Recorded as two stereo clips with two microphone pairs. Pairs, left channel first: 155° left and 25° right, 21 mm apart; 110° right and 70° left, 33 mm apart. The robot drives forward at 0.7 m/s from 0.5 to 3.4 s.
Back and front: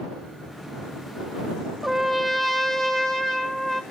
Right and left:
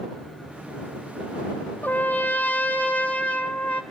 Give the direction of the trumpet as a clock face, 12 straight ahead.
4 o'clock.